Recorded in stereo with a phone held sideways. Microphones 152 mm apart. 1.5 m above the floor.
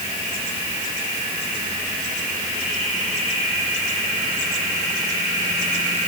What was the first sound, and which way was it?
Only background noise.